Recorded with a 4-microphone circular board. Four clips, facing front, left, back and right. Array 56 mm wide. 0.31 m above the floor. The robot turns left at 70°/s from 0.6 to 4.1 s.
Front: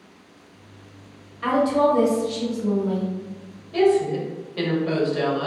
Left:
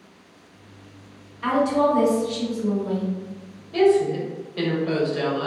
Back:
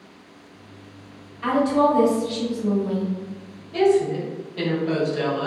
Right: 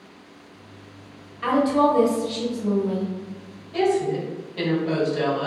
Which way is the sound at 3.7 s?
60° left.